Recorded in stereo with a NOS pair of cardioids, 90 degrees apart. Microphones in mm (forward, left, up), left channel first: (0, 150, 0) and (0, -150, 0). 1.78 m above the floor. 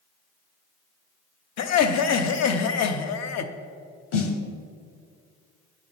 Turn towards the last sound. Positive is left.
turn(degrees=45)